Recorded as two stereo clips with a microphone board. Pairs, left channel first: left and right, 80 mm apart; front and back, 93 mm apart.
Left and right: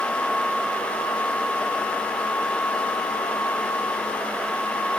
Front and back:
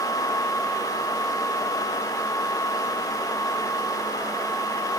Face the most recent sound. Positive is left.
No sound to turn to.